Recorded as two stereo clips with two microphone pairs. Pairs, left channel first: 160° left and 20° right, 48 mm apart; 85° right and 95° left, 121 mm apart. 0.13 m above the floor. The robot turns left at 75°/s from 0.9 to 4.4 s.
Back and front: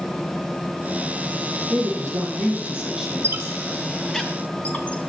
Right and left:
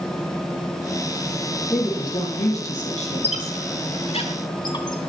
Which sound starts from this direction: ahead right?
A squeak, at 3.2 s.